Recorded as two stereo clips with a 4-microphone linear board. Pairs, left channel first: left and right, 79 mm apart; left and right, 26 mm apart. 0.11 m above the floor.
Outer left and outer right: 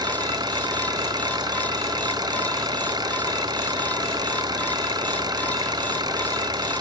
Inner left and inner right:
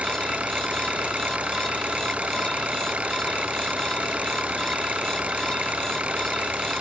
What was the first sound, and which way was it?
An engine running, 60° right (ahead or behind).